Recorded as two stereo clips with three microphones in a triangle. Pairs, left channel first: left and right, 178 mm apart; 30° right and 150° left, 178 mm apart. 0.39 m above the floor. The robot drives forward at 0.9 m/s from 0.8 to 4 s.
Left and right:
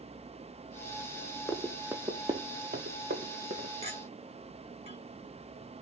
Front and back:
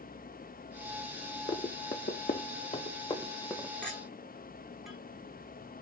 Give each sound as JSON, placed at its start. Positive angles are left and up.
{"t": 1.5, "sound": "running footsteps", "azimuth_deg": 10, "distance_m": 0.9}
{"t": 3.8, "sound": "a clink", "azimuth_deg": -110, "distance_m": 1.0}